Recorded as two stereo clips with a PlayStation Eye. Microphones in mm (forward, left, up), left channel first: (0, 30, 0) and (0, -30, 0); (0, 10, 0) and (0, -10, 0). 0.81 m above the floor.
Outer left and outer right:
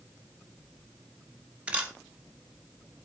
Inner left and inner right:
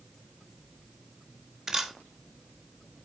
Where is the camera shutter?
20° right (ahead or behind), 1.7 m.